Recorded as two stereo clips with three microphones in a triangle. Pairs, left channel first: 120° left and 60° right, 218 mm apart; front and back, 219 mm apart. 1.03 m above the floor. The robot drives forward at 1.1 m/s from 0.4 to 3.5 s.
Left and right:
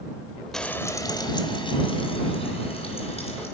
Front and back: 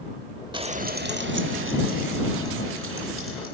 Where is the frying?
155° right, 0.8 m; by 3.5 s straight behind, 3.5 m.